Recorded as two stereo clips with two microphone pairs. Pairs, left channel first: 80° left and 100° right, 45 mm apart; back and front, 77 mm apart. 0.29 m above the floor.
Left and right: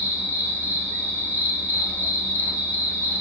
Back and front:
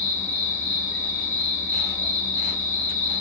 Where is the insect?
70° left, 1.6 m.